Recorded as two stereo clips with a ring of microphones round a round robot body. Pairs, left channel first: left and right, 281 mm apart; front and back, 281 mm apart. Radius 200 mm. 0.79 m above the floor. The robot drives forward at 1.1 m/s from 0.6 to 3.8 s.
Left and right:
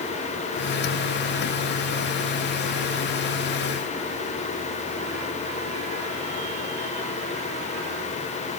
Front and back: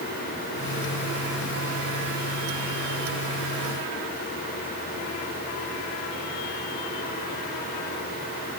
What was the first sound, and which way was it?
Only background noise.